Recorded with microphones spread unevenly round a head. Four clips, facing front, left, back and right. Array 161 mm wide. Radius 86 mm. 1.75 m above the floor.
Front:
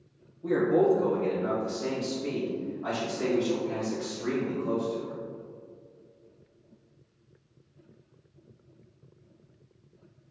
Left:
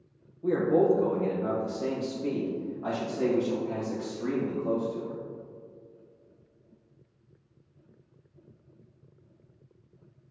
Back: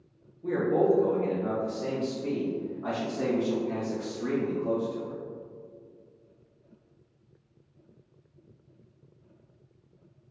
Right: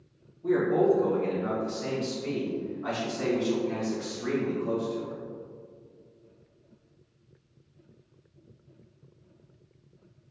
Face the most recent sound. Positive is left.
turn(degrees=135)